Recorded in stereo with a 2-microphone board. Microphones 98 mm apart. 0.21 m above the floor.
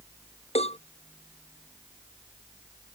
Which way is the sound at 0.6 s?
85° left.